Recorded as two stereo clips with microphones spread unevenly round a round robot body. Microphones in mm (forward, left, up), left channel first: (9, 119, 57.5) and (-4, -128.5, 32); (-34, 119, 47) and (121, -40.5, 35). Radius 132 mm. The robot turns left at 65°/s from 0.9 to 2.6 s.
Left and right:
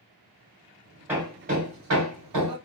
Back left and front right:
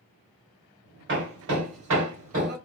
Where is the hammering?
10° right, 1.5 m; by 2.6 s 105° right, 1.5 m.